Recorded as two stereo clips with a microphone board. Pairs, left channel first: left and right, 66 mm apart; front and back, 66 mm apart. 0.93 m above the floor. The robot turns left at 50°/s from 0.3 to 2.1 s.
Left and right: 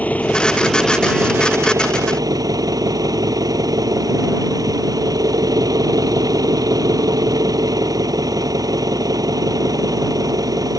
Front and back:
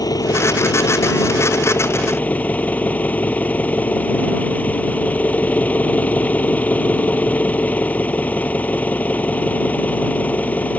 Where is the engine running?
25° left; by 10.8 s 65° right.